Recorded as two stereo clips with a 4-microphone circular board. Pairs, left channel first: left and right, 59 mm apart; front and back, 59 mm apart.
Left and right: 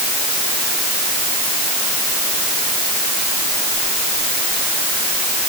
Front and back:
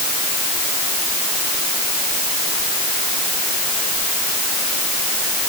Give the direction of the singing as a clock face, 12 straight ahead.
I don't hear singing.